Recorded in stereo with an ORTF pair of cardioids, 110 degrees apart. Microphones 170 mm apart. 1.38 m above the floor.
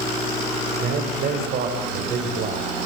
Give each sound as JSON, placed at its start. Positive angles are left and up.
{"t": 0.8, "sound": "a man speaking", "azimuth_deg": -50, "distance_m": 8.0}